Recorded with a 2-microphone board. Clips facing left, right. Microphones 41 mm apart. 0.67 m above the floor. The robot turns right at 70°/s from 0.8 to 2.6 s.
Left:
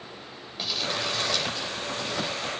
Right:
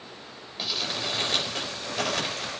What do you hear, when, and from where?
0.6 s crumpling: 175° right, 4.5 m; by 2.5 s 55° right, 4.5 m